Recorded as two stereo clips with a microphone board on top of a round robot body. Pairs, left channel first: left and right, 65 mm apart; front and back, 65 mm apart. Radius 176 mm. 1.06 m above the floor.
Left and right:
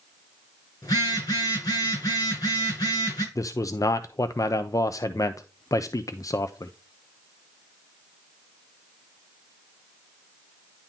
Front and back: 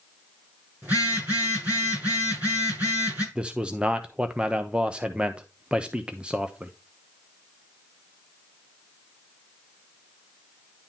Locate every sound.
0.8 s a phone buzzing: 115° left, 6 m
3.4 s a man speaking: 110° left, 0.7 m